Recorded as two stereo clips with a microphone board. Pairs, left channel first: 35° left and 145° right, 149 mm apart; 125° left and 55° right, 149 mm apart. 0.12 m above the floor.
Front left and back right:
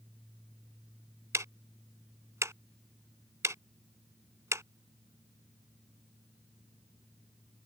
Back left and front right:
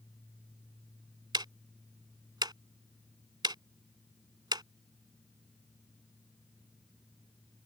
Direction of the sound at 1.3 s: 90° right.